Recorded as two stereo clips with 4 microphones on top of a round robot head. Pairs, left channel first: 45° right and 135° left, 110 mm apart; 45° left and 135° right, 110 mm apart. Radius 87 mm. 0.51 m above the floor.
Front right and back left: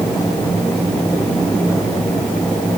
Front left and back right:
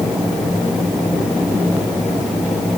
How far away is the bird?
I don't hear a bird.